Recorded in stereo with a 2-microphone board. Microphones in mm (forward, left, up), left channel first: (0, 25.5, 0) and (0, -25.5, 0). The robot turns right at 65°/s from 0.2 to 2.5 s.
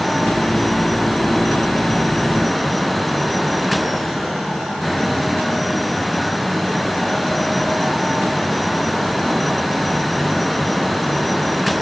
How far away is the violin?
No violin in this recording.